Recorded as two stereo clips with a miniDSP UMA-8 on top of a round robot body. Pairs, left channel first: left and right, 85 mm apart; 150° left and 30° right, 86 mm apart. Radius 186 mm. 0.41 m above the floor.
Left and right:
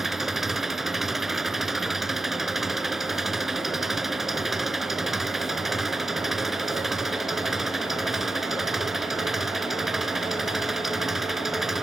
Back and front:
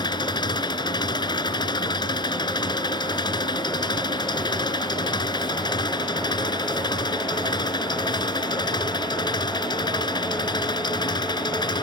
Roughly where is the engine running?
Behind.